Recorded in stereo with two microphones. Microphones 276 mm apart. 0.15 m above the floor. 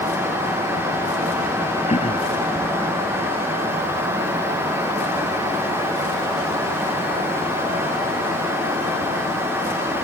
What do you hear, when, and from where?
1.9 s throat clearing: 25° left (ahead or behind)